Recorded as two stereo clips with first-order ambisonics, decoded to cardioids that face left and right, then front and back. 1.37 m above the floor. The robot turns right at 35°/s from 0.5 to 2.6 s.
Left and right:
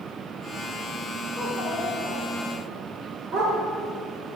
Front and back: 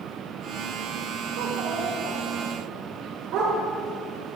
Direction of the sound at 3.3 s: 145° right.